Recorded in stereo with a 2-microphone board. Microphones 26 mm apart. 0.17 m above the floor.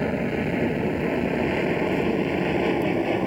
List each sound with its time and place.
0.0 s an aircraft: 10° right (ahead or behind); by 3.3 s centre (ahead or behind)